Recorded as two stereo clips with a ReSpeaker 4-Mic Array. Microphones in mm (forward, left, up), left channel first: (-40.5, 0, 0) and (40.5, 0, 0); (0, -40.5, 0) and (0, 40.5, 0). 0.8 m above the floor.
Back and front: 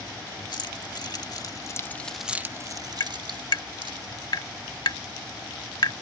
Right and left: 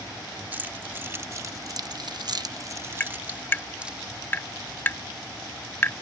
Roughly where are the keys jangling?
Behind left.